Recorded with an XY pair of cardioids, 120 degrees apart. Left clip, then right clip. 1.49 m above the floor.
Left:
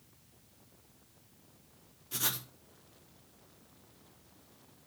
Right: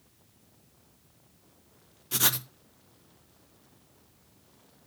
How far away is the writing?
About 0.9 m.